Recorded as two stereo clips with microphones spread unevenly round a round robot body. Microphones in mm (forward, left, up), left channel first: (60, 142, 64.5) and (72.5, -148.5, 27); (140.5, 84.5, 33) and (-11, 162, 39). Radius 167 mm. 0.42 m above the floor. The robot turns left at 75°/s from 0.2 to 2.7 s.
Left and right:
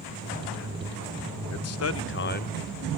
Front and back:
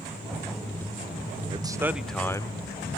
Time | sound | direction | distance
1.5 | a man speaking | 100° left | 1.0 m